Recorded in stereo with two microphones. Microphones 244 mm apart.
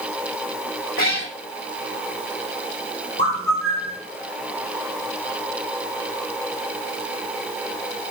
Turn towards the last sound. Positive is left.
turn(degrees=-65)  # may be behind; listen again after turning